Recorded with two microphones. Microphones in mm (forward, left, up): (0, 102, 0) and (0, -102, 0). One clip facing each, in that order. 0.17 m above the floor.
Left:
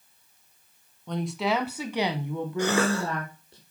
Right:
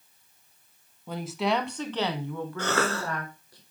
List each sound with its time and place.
1.1 s a woman speaking: 5° right (ahead or behind), 1.4 m; by 3.6 s 25° left (ahead or behind), 2.5 m
2.6 s a cough: 15° left (ahead or behind), 1.8 m